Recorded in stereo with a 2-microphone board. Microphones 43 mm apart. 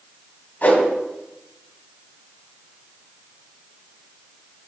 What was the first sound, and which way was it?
A whoosh, 40° left (ahead or behind).